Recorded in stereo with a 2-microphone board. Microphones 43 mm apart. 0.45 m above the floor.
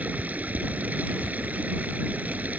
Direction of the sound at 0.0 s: 40° right (ahead or behind).